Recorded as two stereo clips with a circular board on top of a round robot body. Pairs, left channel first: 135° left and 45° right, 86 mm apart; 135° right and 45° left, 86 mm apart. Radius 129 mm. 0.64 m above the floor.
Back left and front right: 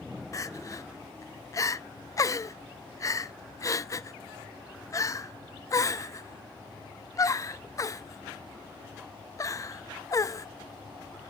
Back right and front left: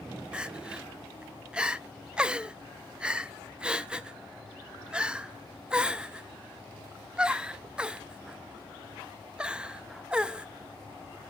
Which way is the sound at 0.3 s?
120° left.